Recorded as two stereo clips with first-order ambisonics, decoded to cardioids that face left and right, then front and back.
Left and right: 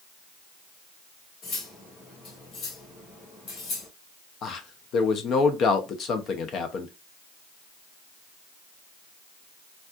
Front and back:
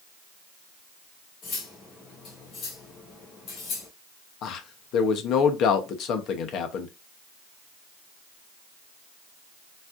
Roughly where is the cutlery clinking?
Ahead left.